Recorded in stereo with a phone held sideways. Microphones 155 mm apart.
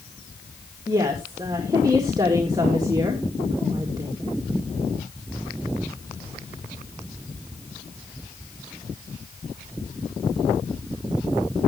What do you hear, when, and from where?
0.9 s a woman speaking: 25° right (ahead or behind), 1.8 m